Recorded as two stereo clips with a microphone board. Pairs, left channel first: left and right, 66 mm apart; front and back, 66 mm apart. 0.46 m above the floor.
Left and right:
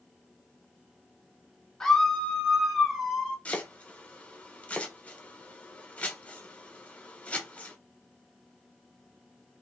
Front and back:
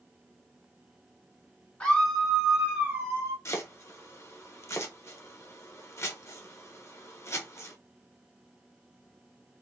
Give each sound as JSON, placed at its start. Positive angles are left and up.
{"t": 1.8, "sound": "a scream", "azimuth_deg": 25, "distance_m": 1.4}
{"t": 3.5, "sound": "chopping", "azimuth_deg": 25, "distance_m": 1.0}